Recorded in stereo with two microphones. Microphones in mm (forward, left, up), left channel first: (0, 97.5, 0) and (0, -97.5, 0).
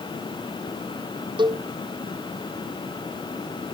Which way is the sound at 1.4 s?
25° right (ahead or behind).